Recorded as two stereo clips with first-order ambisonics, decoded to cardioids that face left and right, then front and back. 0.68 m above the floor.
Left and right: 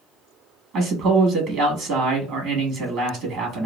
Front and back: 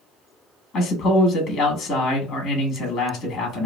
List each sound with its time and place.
0.7 s a man speaking: 55° right, 0.8 m